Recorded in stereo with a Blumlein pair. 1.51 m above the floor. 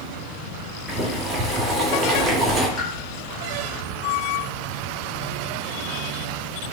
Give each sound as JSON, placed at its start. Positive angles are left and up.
{"t": 0.9, "sound": "boiling", "azimuth_deg": -20, "distance_m": 3.0}
{"t": 2.8, "sound": "a pop", "azimuth_deg": -5, "distance_m": 3.5}